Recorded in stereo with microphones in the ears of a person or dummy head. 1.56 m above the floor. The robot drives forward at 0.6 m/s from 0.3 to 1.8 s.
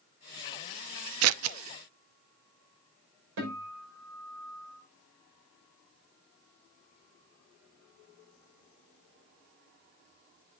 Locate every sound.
1.2 s scissors: 75° right (ahead or behind), 0.5 m
3.4 s a guitar: 70° right (ahead or behind), 6 m